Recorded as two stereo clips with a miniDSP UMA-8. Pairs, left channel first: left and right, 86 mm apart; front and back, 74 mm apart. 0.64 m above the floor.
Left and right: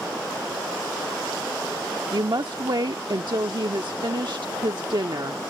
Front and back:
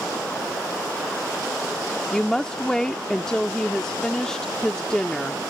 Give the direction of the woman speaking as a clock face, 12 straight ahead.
3 o'clock.